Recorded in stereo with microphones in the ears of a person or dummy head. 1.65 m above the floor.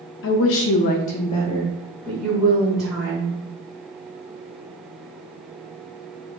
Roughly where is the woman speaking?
Left.